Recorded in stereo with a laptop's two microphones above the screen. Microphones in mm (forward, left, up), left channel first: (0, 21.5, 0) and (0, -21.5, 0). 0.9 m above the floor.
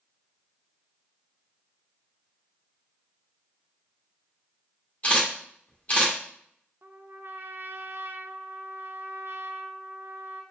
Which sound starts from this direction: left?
A camera shutter, at 5.0 s.